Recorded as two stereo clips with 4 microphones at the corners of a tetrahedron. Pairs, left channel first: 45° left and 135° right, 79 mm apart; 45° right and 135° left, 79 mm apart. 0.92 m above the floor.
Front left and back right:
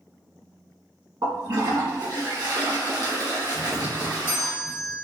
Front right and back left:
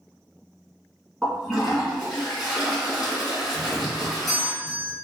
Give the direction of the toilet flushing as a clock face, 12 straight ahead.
5 o'clock.